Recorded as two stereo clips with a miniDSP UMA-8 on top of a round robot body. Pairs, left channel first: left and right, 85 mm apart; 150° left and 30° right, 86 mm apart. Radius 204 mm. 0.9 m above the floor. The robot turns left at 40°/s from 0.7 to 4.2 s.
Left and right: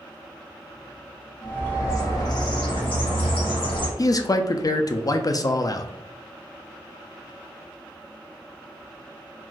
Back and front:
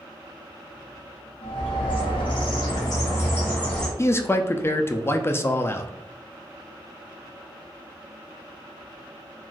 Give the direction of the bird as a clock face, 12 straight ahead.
7 o'clock.